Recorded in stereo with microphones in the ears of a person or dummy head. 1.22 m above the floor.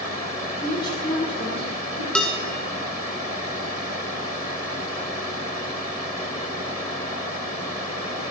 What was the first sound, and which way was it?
A woman speaking, 20° left (ahead or behind).